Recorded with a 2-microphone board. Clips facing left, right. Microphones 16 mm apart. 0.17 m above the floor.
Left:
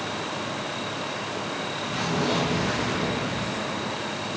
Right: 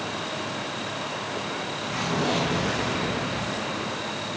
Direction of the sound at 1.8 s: 30° right (ahead or behind).